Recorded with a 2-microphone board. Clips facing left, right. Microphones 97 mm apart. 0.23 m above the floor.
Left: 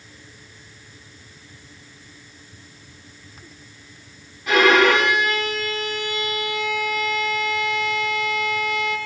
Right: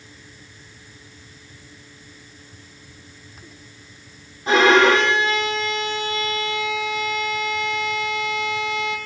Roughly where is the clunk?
I don't hear a clunk.